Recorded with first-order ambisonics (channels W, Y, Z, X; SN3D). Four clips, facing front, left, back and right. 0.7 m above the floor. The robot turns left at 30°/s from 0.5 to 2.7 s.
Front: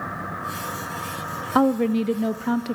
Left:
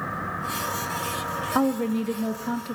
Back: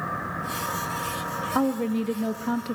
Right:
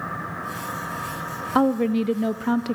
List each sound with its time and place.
1.6 s a woman speaking: 30° right, 0.6 m; by 2.8 s 65° right, 0.6 m